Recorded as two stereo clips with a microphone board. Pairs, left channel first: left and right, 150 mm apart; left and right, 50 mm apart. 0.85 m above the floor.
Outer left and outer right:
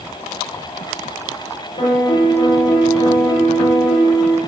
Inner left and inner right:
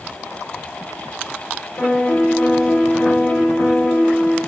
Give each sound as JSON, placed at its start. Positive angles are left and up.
{"t": 1.8, "sound": "a piano", "side_deg": 40, "distance_m": 0.8}